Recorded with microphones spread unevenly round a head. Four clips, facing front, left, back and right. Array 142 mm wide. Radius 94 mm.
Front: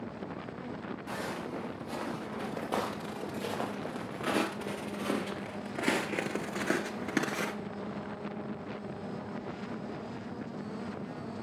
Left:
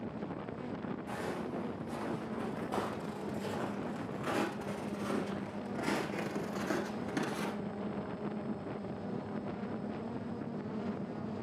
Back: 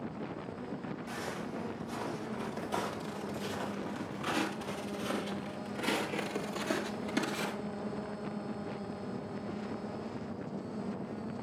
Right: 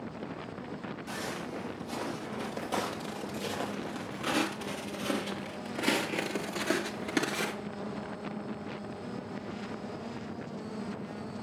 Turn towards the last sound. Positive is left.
turn(degrees=-60)